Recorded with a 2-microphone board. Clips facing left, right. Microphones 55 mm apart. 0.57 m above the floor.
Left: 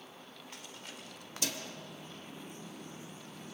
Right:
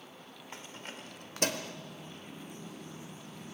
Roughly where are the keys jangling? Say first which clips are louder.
Right 5 dB; right.